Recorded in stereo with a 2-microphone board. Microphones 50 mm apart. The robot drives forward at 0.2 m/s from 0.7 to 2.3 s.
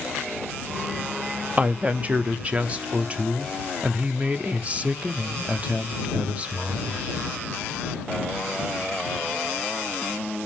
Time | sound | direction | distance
1.6 | a woman speaking | 30° right (ahead or behind) | 0.5 m